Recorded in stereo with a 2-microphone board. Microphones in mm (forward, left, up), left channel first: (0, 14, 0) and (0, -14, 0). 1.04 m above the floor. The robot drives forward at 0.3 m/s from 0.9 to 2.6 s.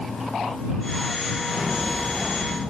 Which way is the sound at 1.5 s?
50° right (ahead or behind).